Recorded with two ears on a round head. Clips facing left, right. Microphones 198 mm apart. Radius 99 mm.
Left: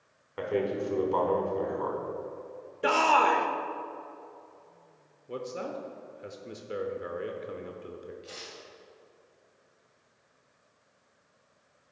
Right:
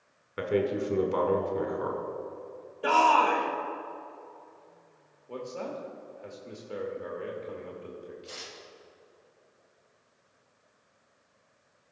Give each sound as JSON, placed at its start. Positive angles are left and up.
{"t": 0.4, "sound": "a man speaking", "side_deg": -20, "distance_m": 1.1}
{"t": 2.8, "sound": "a shout", "side_deg": 30, "distance_m": 0.9}
{"t": 5.3, "sound": "a man speaking", "side_deg": 20, "distance_m": 0.8}
{"t": 8.2, "sound": "tearing paper", "side_deg": 0, "distance_m": 1.7}